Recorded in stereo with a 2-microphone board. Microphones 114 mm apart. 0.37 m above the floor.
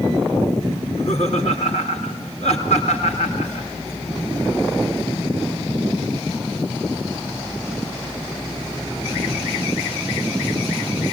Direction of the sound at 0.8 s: 75° left (ahead or behind).